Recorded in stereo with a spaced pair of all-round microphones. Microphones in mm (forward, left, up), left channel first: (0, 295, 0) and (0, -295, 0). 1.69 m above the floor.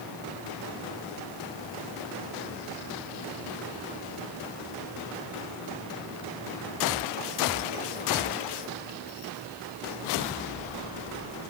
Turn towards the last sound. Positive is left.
No sound to turn to.